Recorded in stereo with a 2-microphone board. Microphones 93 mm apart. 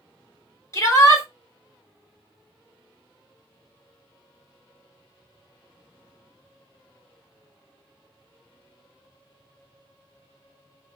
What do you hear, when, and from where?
0.7 s a shout: 35° left (ahead or behind), 1.9 m